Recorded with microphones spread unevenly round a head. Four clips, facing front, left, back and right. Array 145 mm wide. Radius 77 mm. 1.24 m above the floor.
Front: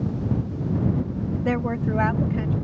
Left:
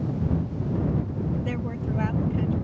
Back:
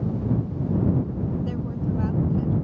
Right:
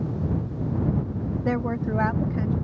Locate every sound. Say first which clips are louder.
1.4 s a woman speaking: right 5 dB, front 5 dB; 30° right